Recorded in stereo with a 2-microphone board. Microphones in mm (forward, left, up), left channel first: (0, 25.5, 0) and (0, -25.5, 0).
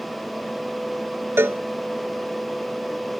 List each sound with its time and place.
1.4 s a cowbell: 50° right (ahead or behind)